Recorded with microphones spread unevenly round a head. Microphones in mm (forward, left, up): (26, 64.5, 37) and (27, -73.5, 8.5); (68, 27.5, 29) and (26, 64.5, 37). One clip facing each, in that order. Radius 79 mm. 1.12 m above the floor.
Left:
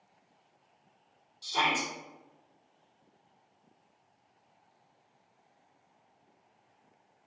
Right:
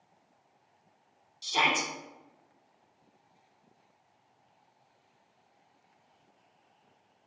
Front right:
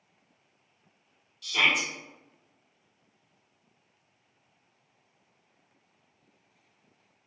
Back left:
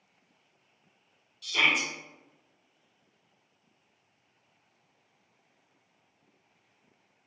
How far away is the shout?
About 0.6 m.